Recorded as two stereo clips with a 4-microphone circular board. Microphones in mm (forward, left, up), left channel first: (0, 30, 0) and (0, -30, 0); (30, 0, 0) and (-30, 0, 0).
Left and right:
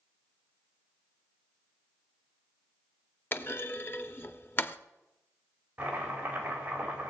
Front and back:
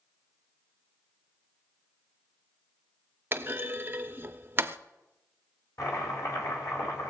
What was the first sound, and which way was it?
A clunk, 135° left.